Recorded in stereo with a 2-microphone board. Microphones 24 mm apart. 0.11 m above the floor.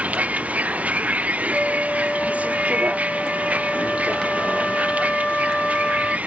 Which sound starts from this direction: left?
A flute, at 1.5 s.